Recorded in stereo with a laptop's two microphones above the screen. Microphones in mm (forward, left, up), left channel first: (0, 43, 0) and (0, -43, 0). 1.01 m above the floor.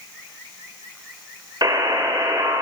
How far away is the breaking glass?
I don't hear breaking glass.